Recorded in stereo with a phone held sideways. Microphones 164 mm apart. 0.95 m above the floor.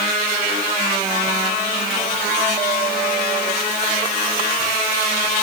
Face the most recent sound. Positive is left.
No sound to turn to.